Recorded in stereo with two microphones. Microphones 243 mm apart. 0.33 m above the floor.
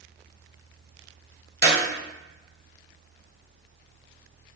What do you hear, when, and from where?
1.6 s a clap: 45° right (ahead or behind), 1.5 m